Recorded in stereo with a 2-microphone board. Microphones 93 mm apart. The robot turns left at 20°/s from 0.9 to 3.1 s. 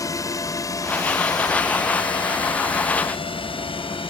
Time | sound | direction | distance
0.0 | a drone | 35° left (ahead or behind) | ?